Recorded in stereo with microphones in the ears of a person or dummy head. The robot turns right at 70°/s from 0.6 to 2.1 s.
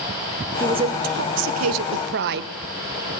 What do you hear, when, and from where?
0.6 s a woman speaking: 160° right, 0.8 m; by 2.5 s 55° right, 0.8 m